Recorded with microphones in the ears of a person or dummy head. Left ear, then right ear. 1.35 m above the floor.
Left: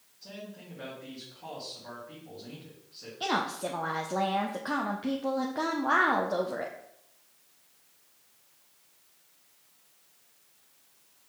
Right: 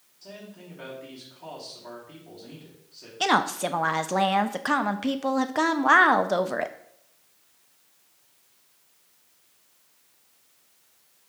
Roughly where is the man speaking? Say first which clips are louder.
Right 1 dB; centre.